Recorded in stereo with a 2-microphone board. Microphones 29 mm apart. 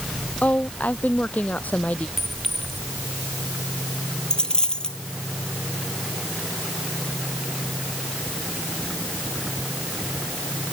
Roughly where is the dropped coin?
Left.